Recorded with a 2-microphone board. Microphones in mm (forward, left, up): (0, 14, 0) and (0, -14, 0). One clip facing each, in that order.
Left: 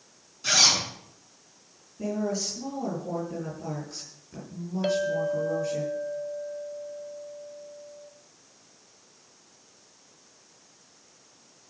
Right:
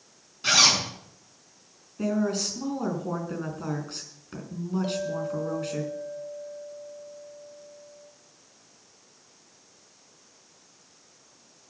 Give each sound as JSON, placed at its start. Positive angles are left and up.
{"t": 0.4, "sound": "a zipper", "side_deg": -25, "distance_m": 5.5}
{"t": 2.0, "sound": "a woman speaking", "side_deg": -60, "distance_m": 5.0}
{"t": 4.8, "sound": "a clink", "side_deg": 60, "distance_m": 0.8}